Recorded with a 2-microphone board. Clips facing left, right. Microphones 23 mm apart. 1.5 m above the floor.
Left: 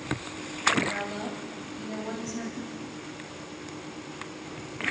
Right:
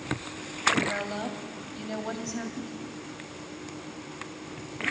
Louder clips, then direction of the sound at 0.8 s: Right 1 dB; 35° right (ahead or behind).